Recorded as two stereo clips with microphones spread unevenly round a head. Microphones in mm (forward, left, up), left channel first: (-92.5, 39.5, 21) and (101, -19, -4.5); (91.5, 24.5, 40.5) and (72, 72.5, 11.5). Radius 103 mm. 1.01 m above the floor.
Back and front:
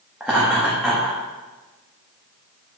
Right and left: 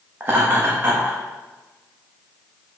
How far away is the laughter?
About 1.3 m.